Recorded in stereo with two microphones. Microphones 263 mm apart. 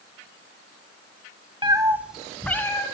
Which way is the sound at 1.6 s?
20° right (ahead or behind).